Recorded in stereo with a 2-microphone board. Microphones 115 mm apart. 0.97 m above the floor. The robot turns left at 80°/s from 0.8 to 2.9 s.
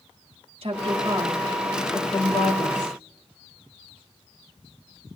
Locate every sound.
0.6 s a woman speaking: 120° right, 2 m; by 3.0 s 75° left, 2 m